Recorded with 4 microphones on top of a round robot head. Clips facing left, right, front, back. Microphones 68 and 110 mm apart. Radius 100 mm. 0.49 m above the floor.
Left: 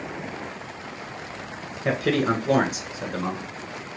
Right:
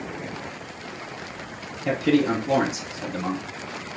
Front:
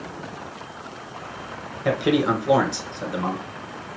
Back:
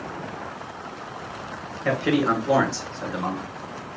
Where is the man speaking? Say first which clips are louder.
Right 2 dB, front 1 dB; 75° left, 2.5 m.